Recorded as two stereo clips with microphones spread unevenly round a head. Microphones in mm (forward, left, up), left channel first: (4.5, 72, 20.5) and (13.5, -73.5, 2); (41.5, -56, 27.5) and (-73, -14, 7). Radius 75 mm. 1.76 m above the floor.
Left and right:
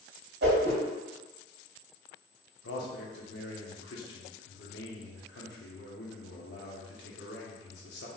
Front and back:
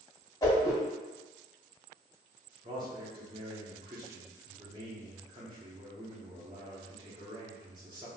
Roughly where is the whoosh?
Right.